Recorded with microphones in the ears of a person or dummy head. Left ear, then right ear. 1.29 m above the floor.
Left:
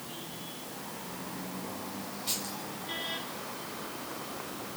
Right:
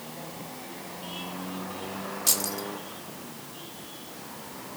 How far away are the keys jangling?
About 2.5 m.